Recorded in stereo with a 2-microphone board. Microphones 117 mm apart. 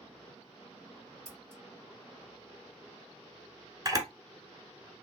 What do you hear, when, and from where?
1.2 s scissors: 65° right (ahead or behind), 2.0 m
3.9 s a camera shutter: 30° right (ahead or behind), 0.7 m